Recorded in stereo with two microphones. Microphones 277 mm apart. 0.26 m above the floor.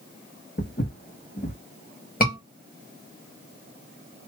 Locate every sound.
0.6 s footsteps: 35° left (ahead or behind), 1.0 m
2.2 s a scream: 35° left (ahead or behind), 1.3 m